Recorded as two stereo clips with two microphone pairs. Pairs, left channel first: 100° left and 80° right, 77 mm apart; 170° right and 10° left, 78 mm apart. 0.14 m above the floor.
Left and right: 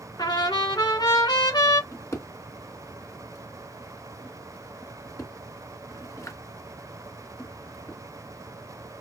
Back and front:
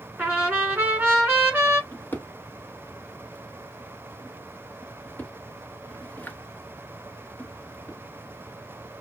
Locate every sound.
0.2 s a trumpet: 80° left, 3.5 m
1.9 s a drawer: 130° left, 1.2 m